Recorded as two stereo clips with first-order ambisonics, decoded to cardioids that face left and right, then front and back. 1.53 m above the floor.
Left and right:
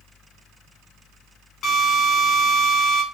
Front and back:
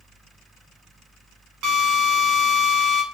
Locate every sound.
1.6 s a drill: 140° left, 2.5 m